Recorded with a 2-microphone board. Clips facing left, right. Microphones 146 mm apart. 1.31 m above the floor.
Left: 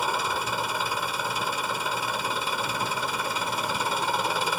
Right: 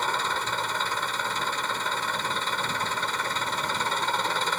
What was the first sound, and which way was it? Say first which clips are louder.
An engine running: left 1 dB; 10° left (ahead or behind).